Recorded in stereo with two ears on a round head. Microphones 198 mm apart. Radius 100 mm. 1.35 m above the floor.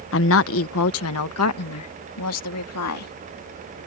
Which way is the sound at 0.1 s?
60° left (ahead or behind).